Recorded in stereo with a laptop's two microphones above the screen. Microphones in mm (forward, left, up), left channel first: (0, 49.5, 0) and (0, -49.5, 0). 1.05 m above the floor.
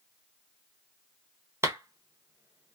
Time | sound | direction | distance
1.6 | a clap | 30° right (ahead or behind) | 0.5 m